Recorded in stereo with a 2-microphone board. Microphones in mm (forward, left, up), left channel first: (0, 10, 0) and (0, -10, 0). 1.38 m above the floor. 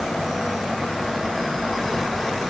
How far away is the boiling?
No boiling in this recording.